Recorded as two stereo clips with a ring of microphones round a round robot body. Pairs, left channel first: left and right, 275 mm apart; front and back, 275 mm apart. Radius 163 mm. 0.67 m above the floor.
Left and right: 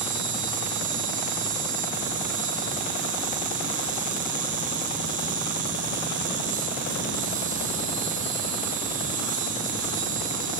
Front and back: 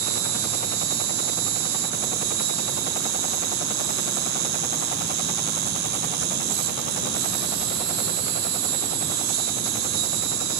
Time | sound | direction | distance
0.0 | an insect | 155° right | 2.5 m